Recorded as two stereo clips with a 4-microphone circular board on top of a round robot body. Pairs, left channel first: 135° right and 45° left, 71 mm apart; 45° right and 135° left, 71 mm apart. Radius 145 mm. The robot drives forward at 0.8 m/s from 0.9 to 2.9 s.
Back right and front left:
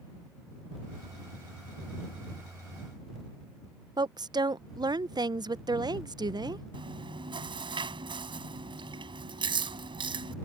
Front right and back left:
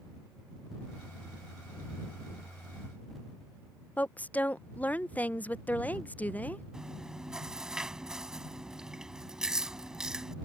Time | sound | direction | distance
4.0 | a woman speaking | 25° left | ?
6.7 | chewing | 55° left | ?